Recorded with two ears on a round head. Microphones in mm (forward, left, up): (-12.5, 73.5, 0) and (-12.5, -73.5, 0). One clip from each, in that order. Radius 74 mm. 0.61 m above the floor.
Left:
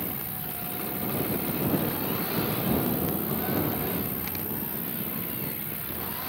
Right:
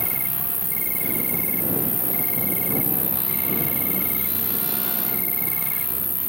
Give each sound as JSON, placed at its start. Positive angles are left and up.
{"t": 0.0, "sound": "an insect", "side_deg": -45}